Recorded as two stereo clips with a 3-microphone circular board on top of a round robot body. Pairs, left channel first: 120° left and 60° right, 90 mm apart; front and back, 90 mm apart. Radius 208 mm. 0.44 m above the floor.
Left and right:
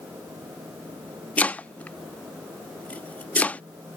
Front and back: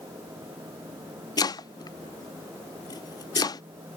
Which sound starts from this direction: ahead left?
Chopping, at 1.4 s.